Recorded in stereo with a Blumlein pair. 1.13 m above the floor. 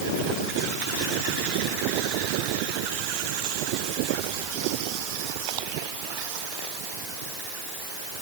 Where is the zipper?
I don't hear a zipper.